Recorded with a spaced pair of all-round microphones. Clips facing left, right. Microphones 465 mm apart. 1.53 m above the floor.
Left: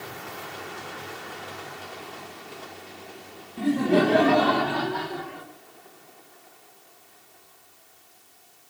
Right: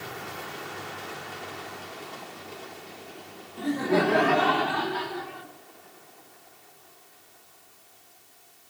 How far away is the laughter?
About 2.5 m.